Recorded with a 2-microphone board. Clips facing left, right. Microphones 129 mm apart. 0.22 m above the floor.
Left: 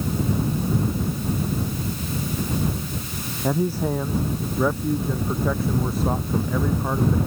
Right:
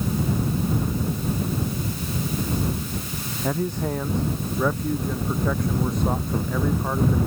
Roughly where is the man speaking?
Centre.